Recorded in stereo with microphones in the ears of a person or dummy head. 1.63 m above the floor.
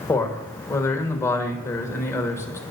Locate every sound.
0.1 s a man speaking: 15° left (ahead or behind), 1.5 m